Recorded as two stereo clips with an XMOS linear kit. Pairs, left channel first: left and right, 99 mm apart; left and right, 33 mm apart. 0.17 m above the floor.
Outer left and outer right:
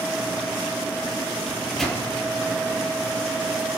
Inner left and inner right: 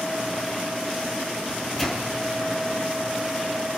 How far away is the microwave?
About 4.5 m.